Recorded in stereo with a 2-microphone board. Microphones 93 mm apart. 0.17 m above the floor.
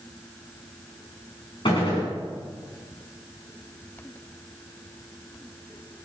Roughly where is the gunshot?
Left.